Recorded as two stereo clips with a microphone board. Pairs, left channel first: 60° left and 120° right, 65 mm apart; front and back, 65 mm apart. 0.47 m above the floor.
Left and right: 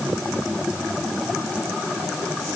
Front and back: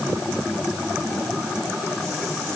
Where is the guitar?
I don't hear a guitar.